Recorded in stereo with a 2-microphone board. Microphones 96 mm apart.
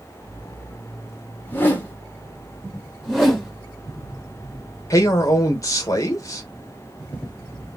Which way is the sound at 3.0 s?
Centre (ahead or behind).